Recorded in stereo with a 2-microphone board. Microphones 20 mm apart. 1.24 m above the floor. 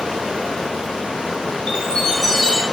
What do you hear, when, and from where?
0.0 s running water: 65° right (ahead or behind), 3 m
1.7 s a chime: 30° left (ahead or behind), 1.4 m